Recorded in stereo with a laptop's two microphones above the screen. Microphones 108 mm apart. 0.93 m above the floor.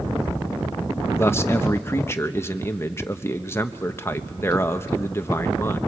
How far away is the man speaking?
About 1.0 m.